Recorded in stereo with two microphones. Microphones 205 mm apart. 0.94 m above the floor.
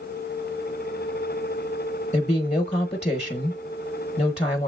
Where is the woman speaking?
30° left (ahead or behind), 0.9 m.